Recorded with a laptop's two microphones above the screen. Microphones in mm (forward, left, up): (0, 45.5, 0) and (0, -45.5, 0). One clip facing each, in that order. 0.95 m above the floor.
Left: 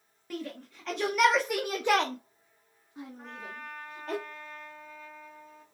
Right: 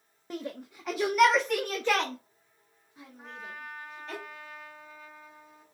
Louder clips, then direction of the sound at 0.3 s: Right 1 dB; 25° right (ahead or behind).